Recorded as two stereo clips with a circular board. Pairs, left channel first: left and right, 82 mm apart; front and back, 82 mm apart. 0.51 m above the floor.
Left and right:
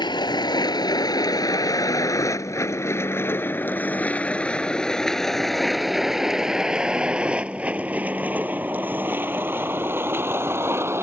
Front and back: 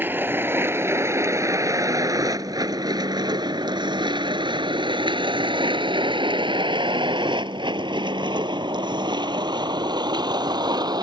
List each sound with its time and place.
0.0 s a vehicle: 115° left; by 11.0 s 145° right